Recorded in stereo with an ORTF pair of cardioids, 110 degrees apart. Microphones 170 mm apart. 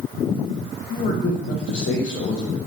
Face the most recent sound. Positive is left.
turn(degrees=55)